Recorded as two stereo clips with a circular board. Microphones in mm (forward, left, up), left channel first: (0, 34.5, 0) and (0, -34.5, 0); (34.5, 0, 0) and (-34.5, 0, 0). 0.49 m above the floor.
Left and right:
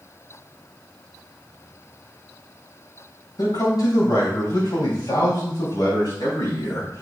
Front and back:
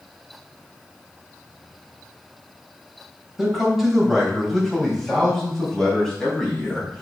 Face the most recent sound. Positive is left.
turn(degrees=80)